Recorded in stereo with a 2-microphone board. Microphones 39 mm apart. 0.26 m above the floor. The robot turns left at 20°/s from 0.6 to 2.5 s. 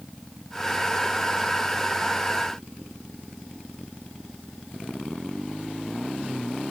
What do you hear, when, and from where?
Only background noise.